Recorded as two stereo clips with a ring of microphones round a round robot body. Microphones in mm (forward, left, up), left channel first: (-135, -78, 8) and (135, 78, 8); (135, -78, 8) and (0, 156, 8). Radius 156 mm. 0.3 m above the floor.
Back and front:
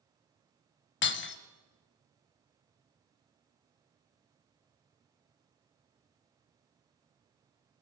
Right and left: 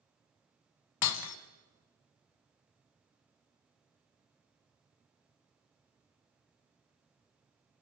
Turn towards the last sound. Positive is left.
turn(degrees=-95)